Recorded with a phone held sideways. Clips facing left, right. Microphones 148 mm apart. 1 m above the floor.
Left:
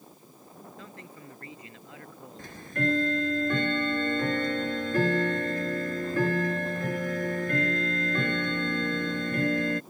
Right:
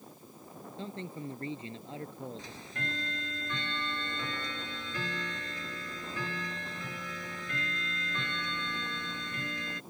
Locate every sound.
0.8 s a man speaking: 30° right (ahead or behind)
2.4 s ticking: 55° left (ahead or behind)